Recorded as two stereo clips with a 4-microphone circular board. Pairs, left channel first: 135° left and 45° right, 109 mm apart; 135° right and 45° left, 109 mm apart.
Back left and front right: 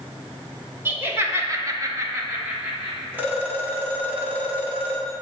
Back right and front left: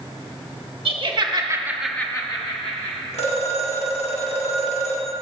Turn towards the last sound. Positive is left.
turn(degrees=-120)